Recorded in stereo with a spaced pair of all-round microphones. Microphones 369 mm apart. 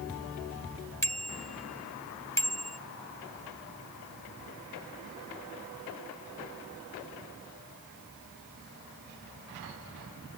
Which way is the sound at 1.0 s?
35° left (ahead or behind).